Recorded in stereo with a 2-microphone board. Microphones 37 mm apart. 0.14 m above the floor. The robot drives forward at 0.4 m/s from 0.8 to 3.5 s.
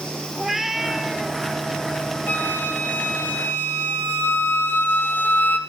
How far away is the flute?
About 3 m.